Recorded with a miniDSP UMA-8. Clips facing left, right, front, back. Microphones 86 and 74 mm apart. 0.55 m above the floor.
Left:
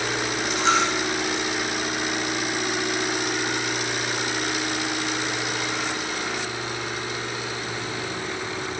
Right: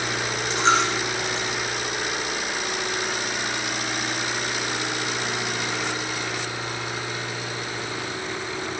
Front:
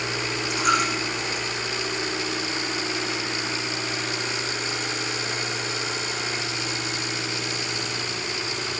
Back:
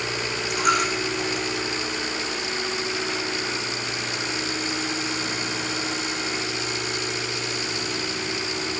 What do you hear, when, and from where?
0.5 s a dropped coin: 145° right, 7.5 m